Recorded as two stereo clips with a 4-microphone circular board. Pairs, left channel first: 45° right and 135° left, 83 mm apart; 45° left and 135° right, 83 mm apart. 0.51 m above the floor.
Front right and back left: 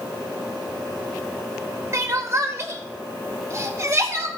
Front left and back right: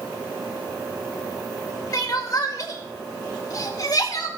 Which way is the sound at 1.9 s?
85° left.